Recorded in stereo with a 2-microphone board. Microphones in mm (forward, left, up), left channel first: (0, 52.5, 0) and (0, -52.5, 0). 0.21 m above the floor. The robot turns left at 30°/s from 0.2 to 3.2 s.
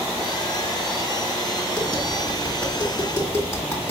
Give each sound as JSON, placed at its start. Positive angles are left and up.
{"t": 1.8, "sound": "tapping", "side_deg": 0, "distance_m": 1.7}